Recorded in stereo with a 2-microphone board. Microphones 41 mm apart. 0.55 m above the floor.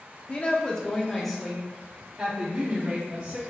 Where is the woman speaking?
30° left (ahead or behind), 0.8 m; by 3.4 s 30° right (ahead or behind), 1.5 m.